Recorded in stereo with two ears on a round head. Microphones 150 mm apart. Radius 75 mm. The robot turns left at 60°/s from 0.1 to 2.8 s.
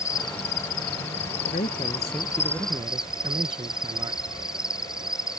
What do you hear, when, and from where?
0.0 s an insect: 155° left; by 5.4 s 5° right
1.5 s a man speaking: 55° left; by 4.2 s 25° right